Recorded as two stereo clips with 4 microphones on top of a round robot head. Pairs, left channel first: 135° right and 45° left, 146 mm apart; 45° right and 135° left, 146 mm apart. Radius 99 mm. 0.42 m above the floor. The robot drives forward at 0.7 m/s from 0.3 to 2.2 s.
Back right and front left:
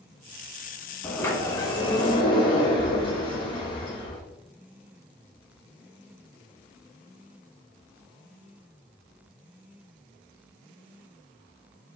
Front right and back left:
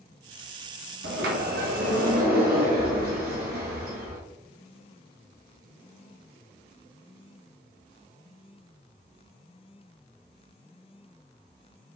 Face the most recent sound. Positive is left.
turn(degrees=165)